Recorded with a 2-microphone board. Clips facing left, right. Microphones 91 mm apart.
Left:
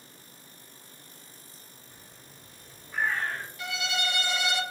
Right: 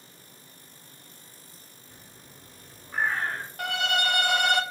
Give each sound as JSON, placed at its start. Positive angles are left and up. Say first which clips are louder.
{"t": 1.9, "sound": "a bird", "louder": "right 4 dB", "side_deg": -35, "distance_m": 1.5}
{"t": 3.6, "sound": "a violin", "louder": "right 6 dB", "side_deg": -55, "distance_m": 0.6}